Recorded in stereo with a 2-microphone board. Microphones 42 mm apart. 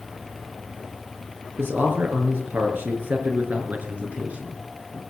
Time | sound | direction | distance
1.6 | a man speaking | 55° right (ahead or behind) | 5 m